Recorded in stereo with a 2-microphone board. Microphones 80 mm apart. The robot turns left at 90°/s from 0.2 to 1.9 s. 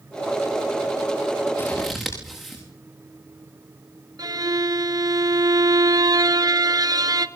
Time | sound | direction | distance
1.6 | scissors | 30° left (ahead or behind) | 9 m
4.2 | a violin | 50° right (ahead or behind) | 1.2 m